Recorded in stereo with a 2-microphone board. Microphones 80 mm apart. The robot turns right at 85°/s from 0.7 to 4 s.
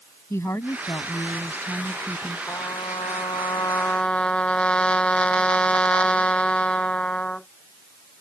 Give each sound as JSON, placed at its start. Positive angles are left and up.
{"t": 0.3, "sound": "a woman speaking", "azimuth_deg": 60}
{"t": 2.5, "sound": "a trumpet", "azimuth_deg": 35}